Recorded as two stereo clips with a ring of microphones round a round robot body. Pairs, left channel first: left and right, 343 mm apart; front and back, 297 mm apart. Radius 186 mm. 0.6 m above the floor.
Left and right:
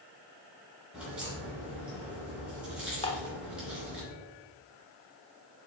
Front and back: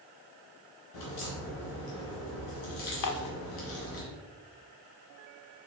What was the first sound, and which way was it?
A crack, 5° right.